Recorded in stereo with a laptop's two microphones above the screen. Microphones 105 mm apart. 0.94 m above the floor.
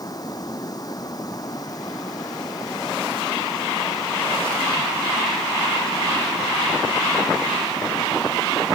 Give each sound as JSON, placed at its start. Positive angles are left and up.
{"t": 0.0, "sound": "running water", "side_deg": 35}